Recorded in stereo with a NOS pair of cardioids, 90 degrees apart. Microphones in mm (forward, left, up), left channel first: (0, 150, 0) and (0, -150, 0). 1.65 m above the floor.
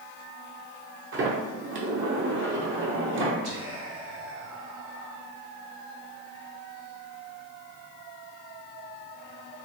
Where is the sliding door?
40° right, 0.8 m.